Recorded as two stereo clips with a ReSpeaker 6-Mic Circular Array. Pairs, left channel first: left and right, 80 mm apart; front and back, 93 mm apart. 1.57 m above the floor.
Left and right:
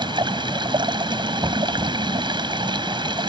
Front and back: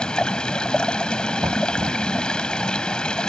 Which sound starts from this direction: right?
Running water, at 0.0 s.